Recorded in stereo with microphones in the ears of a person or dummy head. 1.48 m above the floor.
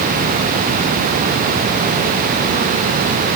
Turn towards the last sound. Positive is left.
No sound to turn to.